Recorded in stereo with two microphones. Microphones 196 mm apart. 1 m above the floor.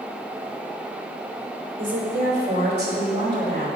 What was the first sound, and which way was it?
A woman speaking, 75° right (ahead or behind).